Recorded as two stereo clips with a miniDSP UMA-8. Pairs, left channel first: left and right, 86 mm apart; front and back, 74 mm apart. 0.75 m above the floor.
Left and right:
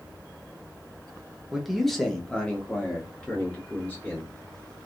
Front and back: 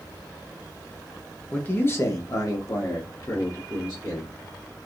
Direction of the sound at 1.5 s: 15° right.